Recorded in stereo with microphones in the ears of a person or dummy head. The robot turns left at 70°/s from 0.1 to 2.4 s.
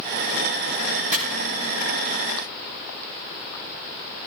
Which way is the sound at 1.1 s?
50° right (ahead or behind).